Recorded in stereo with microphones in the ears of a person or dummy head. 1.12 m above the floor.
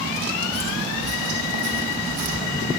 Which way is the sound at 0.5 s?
50° right (ahead or behind).